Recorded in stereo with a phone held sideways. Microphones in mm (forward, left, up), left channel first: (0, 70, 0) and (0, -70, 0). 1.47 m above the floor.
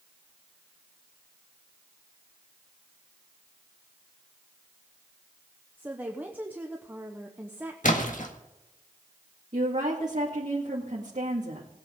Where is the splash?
65° left (ahead or behind), 1.6 m.